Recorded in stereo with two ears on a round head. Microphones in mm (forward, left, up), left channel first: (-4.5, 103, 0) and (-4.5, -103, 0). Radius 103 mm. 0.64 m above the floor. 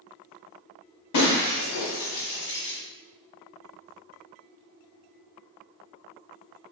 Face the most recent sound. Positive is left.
turn(degrees=85)